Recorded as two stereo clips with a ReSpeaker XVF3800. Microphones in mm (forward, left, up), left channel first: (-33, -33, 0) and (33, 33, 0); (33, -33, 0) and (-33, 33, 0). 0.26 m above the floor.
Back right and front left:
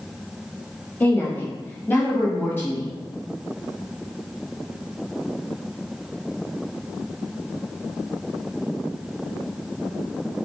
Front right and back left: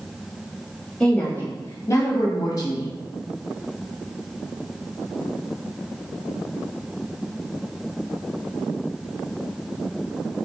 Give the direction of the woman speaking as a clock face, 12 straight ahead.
4 o'clock.